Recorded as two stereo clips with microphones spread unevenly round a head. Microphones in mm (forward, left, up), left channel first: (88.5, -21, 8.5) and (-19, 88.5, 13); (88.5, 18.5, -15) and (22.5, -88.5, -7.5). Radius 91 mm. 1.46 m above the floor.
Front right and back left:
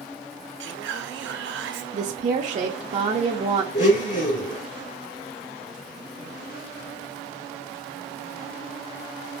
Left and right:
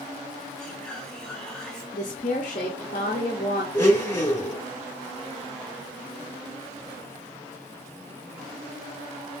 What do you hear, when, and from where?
0.6 s whispering: 145° left, 0.7 m
1.9 s a woman speaking: 95° left, 0.6 m
3.7 s a blender: 10° right, 2 m